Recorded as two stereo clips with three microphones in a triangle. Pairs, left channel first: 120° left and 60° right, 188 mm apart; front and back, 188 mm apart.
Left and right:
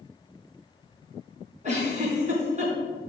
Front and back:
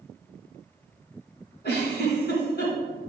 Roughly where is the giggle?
Ahead.